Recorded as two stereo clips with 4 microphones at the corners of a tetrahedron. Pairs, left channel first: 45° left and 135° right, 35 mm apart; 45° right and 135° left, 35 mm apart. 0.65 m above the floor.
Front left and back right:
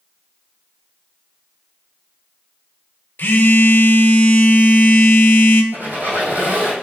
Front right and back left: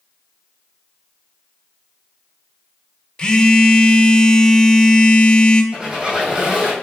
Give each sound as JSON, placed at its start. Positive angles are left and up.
{"t": 3.2, "sound": "a phone buzzing", "azimuth_deg": 15, "distance_m": 0.6}
{"t": 5.7, "sound": "a squeak", "azimuth_deg": -155, "distance_m": 1.9}